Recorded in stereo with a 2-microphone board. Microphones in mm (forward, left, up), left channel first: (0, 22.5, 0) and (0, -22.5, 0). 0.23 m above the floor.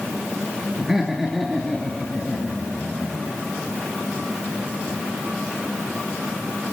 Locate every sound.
0.8 s laughter: 10° right (ahead or behind), 3 m; by 3.4 s 25° left (ahead or behind), 5 m